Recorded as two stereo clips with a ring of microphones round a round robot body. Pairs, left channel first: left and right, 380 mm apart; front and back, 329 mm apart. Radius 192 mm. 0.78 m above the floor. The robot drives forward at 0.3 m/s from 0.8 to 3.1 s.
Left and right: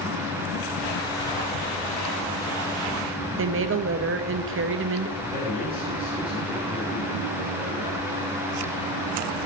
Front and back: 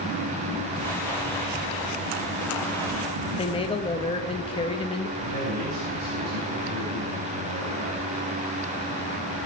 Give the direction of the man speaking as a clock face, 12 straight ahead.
6 o'clock.